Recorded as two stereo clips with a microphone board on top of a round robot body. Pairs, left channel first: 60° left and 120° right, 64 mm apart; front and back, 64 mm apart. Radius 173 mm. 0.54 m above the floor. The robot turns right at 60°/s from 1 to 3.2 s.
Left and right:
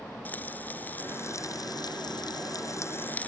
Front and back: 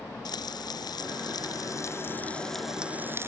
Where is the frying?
5° right; by 3.3 s 125° left.